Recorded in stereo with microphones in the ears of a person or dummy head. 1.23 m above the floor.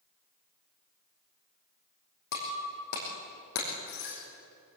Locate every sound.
2.3 s breaking glass: 60° left (ahead or behind), 5 m